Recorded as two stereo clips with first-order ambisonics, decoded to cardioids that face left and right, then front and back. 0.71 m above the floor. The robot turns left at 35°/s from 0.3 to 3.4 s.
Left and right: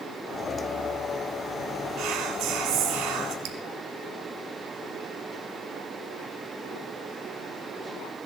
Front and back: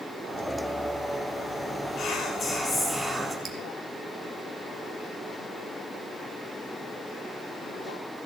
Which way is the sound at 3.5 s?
110° right.